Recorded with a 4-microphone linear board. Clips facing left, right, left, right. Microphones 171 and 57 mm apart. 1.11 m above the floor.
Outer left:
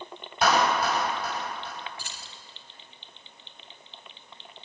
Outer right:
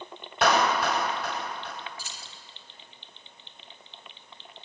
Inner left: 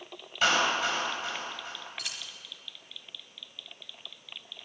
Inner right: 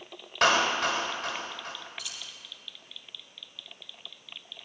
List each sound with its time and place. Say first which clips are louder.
0.4 s a clap: even, inner right 2 dB; 80° right, 3.5 m
2.0 s keys jangling: outer left 1 dB, inner left 2 dB; 60° left (ahead or behind), 1.5 m